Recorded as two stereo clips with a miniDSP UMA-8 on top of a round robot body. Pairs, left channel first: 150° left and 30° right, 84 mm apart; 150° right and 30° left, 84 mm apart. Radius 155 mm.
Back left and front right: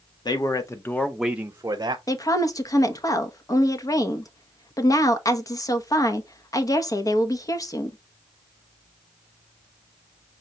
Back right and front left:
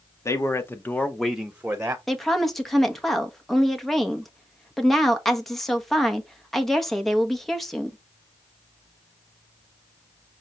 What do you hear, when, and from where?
0.2 s a man speaking: 165° left, 1.3 m; by 2.0 s 25° right, 1.2 m
2.1 s a woman speaking: 125° left, 1.2 m